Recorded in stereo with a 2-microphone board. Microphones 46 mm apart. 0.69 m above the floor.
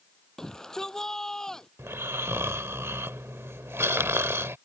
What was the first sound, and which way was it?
A shout, 10° left (ahead or behind).